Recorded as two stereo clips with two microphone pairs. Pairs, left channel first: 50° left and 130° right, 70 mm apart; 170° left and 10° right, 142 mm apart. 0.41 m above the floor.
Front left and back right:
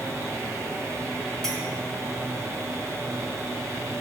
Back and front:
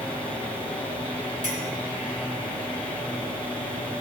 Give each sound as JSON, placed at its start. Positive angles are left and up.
{"t": 1.4, "sound": "a clink", "azimuth_deg": -30, "distance_m": 2.5}